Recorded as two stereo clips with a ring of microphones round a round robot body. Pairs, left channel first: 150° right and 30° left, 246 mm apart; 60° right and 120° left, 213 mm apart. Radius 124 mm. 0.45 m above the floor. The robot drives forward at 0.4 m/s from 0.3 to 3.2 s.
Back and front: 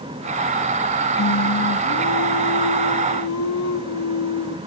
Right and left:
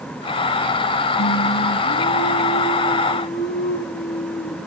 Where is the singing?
95° right, 1.5 m; by 4.6 s 125° right, 1.7 m.